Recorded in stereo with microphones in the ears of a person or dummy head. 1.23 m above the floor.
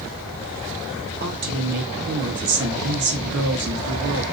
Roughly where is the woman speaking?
Right.